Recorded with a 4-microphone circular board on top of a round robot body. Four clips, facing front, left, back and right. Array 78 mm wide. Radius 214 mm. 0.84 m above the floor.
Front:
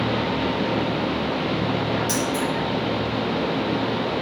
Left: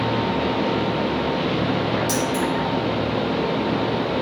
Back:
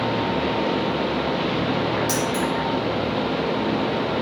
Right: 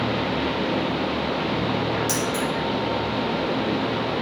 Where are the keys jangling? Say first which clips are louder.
Left 2 dB, back 1 dB; 160° right, 0.7 m.